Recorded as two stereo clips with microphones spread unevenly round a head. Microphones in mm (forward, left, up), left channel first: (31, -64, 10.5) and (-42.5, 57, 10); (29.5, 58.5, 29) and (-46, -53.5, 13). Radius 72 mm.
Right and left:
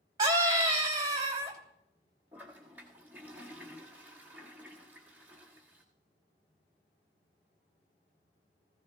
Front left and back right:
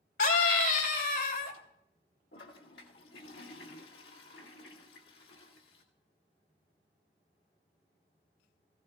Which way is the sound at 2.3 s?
45° left.